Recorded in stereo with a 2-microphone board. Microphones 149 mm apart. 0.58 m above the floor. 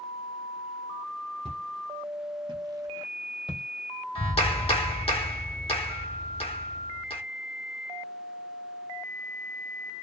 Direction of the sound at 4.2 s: 40° left (ahead or behind).